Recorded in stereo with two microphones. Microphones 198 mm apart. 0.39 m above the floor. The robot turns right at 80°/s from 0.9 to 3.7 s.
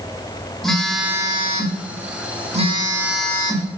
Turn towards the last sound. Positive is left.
turn(degrees=40)